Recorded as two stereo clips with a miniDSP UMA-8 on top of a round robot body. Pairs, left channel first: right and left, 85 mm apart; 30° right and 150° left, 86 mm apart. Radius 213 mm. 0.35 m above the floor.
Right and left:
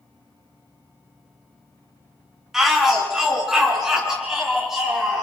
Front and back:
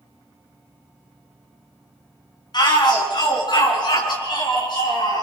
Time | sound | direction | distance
2.5 | a shout | 5° left | 5.5 m